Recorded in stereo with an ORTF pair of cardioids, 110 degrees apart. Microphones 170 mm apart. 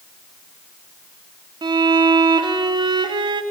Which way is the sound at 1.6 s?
25° right.